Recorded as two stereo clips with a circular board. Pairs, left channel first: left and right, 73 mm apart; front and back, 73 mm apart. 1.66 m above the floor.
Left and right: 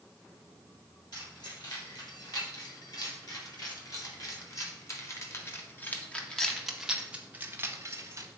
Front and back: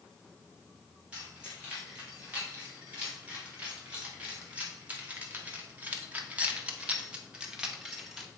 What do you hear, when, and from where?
1.1 s keys jangling: 110° left, 3 m; by 8.3 s 95° right, 1.2 m